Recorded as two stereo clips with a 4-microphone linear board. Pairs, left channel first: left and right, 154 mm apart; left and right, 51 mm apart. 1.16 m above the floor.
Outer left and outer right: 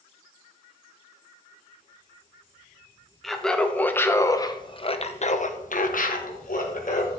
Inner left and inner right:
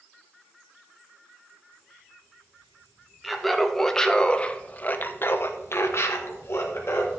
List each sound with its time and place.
3.2 s laughter: centre (ahead or behind), 1.3 m; by 7.1 s 55° left (ahead or behind), 1.4 m